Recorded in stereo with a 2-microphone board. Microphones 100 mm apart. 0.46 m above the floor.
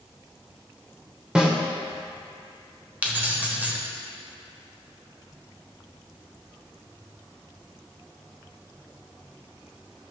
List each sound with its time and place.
1.4 s a snare drum: 10° right (ahead or behind), 1.2 m
3.0 s keys jangling: 15° right (ahead or behind), 1.2 m